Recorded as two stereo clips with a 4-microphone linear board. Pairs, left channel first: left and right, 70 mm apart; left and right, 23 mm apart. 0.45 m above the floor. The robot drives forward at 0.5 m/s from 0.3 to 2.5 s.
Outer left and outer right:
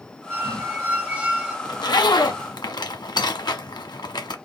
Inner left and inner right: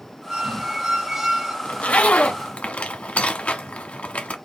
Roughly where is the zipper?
Left.